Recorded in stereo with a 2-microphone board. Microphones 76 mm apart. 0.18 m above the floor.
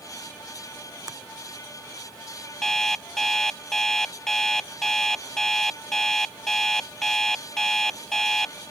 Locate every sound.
1.1 s a finger snap: 55° right (ahead or behind)
2.6 s an alarm clock: 5° left (ahead or behind)